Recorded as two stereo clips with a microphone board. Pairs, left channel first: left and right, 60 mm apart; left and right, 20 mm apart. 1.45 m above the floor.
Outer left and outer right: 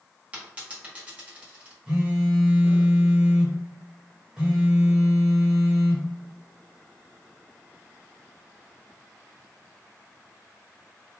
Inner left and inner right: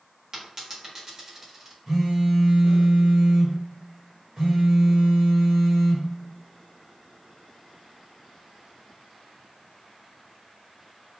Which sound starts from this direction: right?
A dropped coin, at 0.3 s.